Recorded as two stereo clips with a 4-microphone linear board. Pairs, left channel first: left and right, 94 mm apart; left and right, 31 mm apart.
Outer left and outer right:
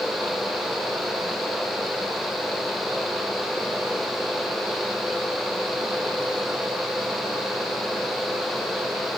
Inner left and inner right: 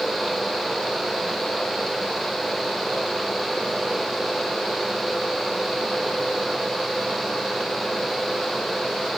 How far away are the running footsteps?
No running footsteps in this recording.